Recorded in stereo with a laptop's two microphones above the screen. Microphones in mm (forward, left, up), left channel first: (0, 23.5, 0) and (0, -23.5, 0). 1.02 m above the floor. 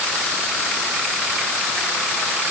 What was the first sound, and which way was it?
Only background noise.